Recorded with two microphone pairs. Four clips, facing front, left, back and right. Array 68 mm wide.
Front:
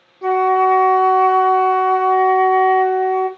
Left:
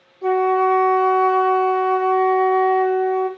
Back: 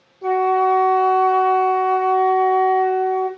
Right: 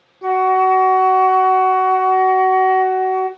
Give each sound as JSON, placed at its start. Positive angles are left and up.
{"t": 0.2, "sound": "a flute", "azimuth_deg": -30, "distance_m": 0.9}